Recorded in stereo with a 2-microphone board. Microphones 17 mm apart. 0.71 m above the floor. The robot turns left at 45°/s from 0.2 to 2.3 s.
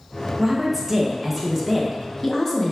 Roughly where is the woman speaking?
Behind right.